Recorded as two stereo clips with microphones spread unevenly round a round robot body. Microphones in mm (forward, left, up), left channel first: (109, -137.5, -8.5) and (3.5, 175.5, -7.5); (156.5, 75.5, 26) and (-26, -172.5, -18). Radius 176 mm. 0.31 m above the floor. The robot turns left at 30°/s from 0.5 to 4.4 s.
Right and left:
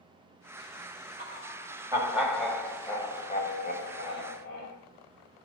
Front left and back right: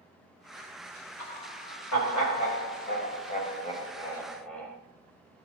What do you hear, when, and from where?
1.2 s laughter: 55° left, 1.8 m; by 4.8 s 40° right, 1.8 m